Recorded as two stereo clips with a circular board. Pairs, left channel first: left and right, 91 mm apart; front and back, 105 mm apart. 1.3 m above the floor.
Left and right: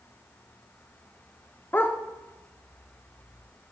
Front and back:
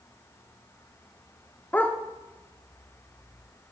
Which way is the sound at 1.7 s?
55° left.